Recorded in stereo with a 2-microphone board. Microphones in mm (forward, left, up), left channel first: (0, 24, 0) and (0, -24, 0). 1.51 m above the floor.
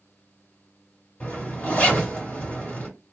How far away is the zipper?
About 1.7 m.